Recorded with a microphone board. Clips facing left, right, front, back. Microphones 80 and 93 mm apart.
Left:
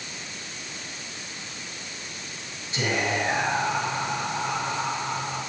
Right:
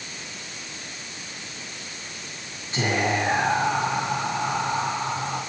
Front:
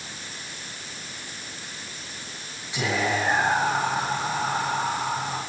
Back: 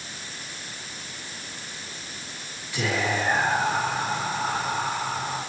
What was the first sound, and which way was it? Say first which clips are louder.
Whispering: right 2 dB, front 1 dB; 60° right.